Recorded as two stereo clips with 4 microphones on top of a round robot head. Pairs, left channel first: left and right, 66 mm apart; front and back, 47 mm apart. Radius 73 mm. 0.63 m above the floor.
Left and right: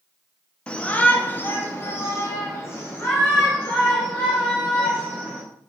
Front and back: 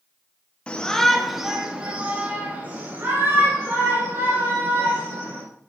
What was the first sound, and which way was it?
A shout, 35° left.